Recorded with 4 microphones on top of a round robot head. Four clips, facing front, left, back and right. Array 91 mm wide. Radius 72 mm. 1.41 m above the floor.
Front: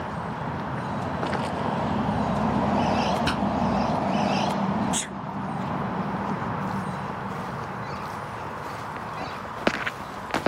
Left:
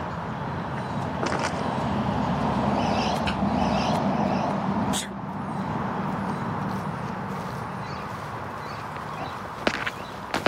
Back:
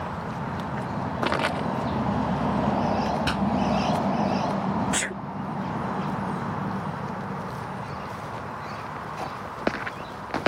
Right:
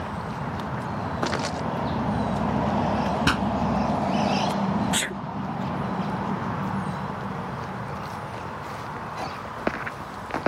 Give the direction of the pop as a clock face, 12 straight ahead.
3 o'clock.